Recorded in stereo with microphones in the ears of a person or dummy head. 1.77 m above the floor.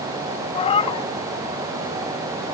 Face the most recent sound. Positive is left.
turn(degrees=35)  # may be behind; listen again after turning